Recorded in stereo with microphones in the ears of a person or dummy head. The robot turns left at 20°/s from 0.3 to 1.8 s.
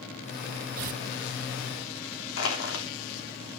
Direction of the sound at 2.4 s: 75° left (ahead or behind).